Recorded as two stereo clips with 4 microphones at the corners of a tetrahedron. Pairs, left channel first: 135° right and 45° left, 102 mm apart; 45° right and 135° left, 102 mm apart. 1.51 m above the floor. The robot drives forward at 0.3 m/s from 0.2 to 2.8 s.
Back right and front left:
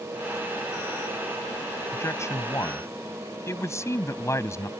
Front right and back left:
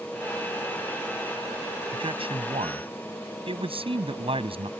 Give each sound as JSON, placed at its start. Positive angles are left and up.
{"t": 1.9, "sound": "a man speaking", "azimuth_deg": 160}